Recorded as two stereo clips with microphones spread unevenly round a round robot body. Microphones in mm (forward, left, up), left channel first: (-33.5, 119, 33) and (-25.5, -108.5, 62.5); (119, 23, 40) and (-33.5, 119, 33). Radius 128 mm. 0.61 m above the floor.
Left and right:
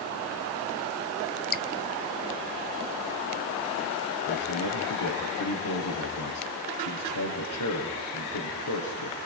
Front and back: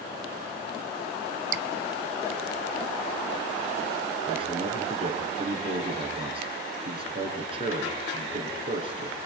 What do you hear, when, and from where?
1.5 s dripping: 140° left, 4 m
4.3 s a man speaking: 90° left, 7 m